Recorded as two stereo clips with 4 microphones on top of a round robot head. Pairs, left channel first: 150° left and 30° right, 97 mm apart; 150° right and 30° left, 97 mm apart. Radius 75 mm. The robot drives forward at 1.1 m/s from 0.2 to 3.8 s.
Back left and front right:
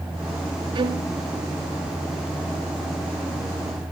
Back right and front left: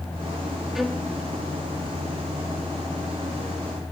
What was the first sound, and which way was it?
A violin, 55° right.